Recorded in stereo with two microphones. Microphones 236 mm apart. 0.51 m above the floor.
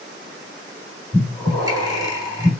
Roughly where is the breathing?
Centre.